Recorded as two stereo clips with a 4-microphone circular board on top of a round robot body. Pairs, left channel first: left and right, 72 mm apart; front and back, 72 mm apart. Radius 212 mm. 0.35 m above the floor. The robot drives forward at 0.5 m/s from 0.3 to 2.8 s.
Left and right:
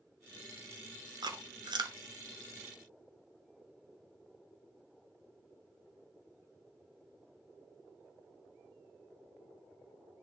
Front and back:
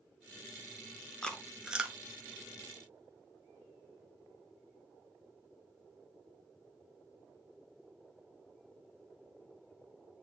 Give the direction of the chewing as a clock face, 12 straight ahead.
3 o'clock.